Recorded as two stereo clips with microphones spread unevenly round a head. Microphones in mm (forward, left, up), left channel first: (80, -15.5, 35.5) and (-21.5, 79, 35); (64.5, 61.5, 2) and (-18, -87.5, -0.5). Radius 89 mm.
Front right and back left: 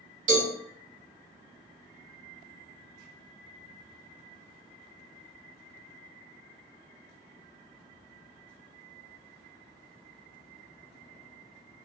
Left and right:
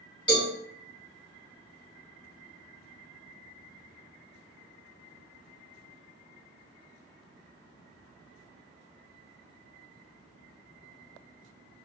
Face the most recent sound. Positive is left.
turn(degrees=125)